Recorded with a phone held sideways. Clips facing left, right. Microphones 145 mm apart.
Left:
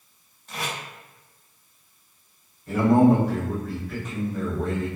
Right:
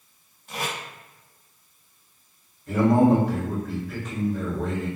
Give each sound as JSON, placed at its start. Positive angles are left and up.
{"t": 0.5, "sound": "tape being pulled", "side_deg": -10, "distance_m": 1.1}
{"t": 2.7, "sound": "a man speaking", "side_deg": 0, "distance_m": 1.9}